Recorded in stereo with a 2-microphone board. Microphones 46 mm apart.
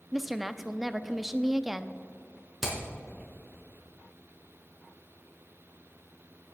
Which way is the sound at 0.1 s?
5° right (ahead or behind).